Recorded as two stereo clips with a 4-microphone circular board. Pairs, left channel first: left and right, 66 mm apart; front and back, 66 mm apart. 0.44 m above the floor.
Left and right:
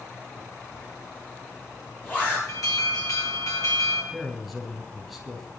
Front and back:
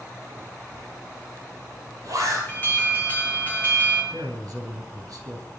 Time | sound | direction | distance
0.7 | a zipper | 150° left | 8.5 m
2.5 | an alarm | 60° left | 5.5 m
4.1 | a man speaking | straight behind | 4 m